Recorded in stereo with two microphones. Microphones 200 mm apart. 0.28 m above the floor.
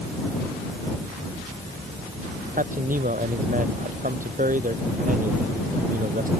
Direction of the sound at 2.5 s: 40° right (ahead or behind).